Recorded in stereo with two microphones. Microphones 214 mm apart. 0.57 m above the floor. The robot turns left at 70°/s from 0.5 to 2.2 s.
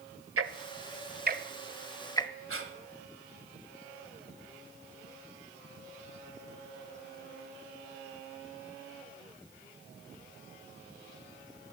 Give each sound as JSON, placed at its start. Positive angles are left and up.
{"t": 0.4, "sound": "ticking", "side_deg": -80, "distance_m": 0.8}
{"t": 2.5, "sound": "breathing", "side_deg": -75, "distance_m": 1.9}